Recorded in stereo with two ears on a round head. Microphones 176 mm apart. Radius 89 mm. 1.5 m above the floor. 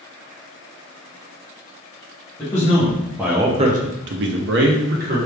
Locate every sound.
2.4 s a man speaking: 10° left (ahead or behind), 1.2 m; by 5.2 s 50° right (ahead or behind), 1.1 m